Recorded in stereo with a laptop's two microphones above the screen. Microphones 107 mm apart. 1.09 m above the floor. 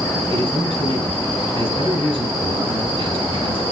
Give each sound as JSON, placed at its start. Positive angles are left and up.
{"t": 0.3, "sound": "a man speaking", "side_deg": -65, "distance_m": 4.5}